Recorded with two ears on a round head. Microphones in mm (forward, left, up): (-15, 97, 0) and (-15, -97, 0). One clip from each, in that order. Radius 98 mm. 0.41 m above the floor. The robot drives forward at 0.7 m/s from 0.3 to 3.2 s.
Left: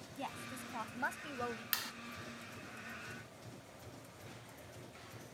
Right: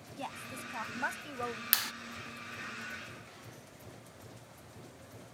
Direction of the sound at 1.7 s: 20° right (ahead or behind).